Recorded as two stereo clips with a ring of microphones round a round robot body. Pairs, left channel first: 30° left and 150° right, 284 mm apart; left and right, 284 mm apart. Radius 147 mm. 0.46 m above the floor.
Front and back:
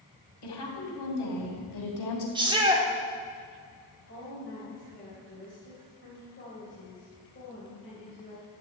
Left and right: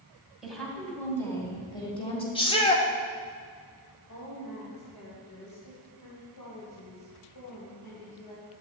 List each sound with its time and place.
0.4 s a woman speaking: straight ahead, 2.5 m; by 2.2 s 20° left, 3 m
2.4 s a shout: 150° left, 1.5 m
4.1 s a woman speaking: 75° left, 3 m